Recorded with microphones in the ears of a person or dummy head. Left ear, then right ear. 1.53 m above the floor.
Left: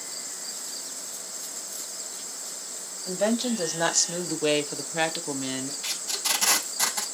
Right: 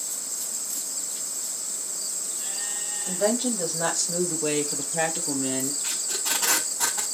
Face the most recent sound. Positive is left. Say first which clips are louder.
# even
turn(degrees=80)